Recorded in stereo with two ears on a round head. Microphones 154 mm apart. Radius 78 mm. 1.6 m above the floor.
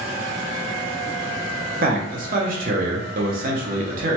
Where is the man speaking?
55° right (ahead or behind), 0.7 m.